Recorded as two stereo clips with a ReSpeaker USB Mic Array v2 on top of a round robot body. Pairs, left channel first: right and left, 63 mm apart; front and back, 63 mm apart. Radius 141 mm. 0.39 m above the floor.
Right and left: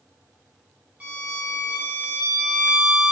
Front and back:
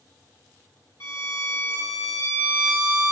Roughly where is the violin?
Ahead left.